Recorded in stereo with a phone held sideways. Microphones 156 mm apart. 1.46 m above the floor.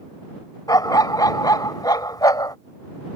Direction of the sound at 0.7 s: 25° left (ahead or behind).